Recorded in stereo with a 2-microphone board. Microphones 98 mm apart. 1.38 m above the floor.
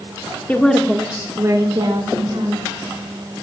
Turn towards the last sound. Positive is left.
turn(degrees=-65)  # may be behind; listen again after turning